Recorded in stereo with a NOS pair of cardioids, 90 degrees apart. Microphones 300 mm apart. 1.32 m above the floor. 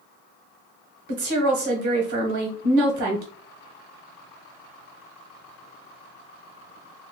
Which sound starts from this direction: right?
A woman speaking, at 1.1 s.